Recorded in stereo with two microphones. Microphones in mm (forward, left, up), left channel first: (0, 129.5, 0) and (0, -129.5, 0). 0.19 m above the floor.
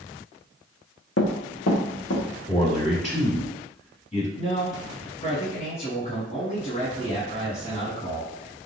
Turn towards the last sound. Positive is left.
turn(degrees=30)  # may be behind; listen again after turning